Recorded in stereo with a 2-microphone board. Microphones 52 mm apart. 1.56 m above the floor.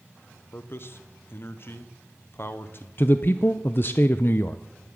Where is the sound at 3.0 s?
45° left (ahead or behind), 0.6 m.